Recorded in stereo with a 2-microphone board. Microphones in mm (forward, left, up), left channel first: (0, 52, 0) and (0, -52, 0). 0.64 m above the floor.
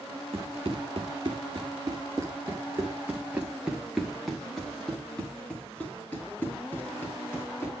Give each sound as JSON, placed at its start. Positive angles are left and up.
{"t": 0.3, "sound": "running footsteps", "side_deg": -60, "distance_m": 2.5}